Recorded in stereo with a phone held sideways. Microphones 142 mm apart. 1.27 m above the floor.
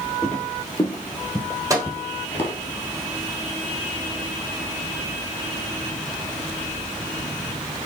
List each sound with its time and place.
0.2 s footsteps: 5° left (ahead or behind), 1.6 m; by 2.5 s 15° left (ahead or behind), 1.3 m
1.7 s a microwave: 20° right (ahead or behind), 1.1 m